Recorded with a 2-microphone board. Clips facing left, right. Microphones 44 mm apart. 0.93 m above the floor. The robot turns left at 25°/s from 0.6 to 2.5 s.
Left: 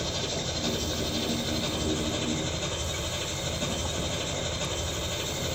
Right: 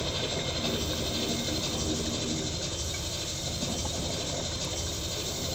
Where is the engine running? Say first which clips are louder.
Even; 170° right, 3 m; by 5.6 s 145° left, 3 m.